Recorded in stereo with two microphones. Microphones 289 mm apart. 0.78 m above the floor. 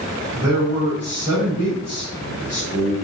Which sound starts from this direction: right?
A man speaking, at 0.3 s.